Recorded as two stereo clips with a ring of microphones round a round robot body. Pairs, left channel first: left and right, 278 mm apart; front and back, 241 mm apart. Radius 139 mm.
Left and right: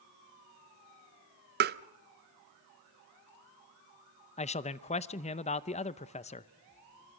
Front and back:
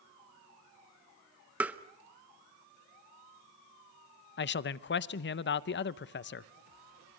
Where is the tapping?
100° right, 0.6 m.